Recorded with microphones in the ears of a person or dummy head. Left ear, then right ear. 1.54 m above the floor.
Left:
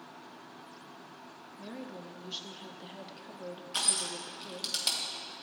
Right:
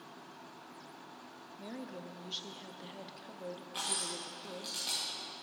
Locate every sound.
1.6 s a woman speaking: centre (ahead or behind), 0.5 m
3.7 s crushing: 50° left (ahead or behind), 1.6 m